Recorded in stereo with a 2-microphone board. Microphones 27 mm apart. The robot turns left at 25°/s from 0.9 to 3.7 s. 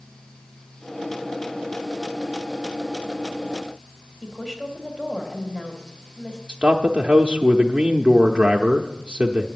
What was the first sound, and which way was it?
A woman speaking, 20° left (ahead or behind).